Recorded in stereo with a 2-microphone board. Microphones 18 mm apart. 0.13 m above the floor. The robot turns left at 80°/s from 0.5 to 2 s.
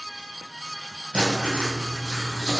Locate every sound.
1.1 s writing: 55° right, 1.8 m; by 2.6 s 120° right, 1.8 m